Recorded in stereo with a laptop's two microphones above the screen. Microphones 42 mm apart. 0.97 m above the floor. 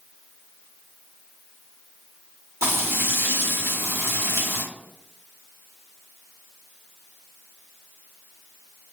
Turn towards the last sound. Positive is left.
turn(degrees=-80)